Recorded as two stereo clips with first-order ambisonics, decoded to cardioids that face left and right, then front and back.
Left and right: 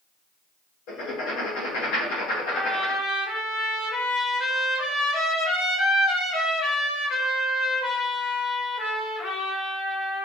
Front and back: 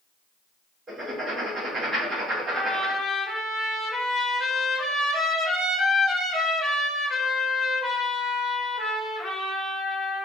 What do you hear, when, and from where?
0.9 s writing: 110° left, 1.2 m
2.5 s a trumpet: 65° left, 1.2 m